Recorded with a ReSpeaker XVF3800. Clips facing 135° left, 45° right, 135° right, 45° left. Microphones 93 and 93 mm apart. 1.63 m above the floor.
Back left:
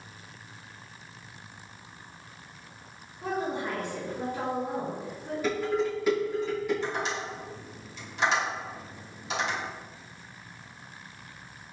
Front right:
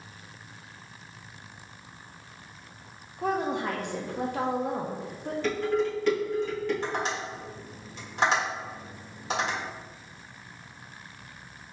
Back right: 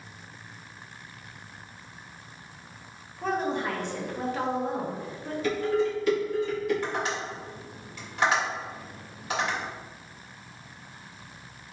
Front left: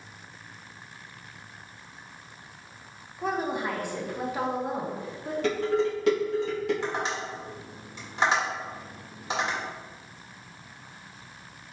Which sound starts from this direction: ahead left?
Dishes clattering, at 5.4 s.